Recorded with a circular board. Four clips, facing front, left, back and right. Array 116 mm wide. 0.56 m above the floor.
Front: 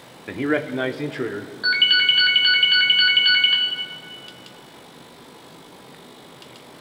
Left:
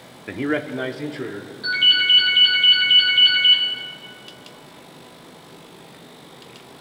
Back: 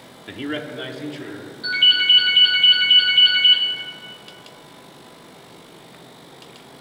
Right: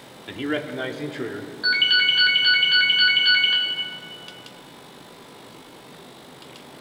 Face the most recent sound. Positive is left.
turn(degrees=-25)